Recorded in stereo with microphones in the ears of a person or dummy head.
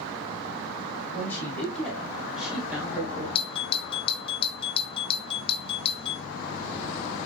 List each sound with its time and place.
1.1 s a man speaking: centre (ahead or behind), 3.5 m; by 3.2 s 25° right (ahead or behind), 2.5 m
3.4 s a doorbell: 20° left (ahead or behind), 0.8 m